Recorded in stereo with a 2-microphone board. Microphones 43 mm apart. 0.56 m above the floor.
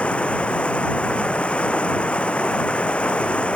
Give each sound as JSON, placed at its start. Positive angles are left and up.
{"t": 0.0, "sound": "running water", "side_deg": 30}